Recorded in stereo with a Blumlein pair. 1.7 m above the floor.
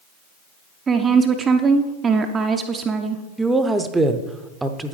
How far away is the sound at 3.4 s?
About 0.7 m.